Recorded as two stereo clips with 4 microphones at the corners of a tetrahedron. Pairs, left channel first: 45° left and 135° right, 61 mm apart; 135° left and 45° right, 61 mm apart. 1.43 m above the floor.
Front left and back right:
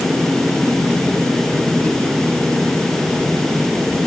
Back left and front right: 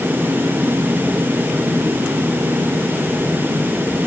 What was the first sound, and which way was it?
Only background noise.